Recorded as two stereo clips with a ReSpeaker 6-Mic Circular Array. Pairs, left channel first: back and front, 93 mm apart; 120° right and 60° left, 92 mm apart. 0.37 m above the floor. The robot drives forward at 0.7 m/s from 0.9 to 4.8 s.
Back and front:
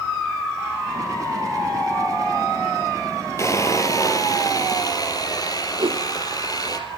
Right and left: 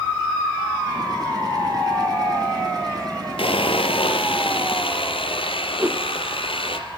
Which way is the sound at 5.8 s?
5° right.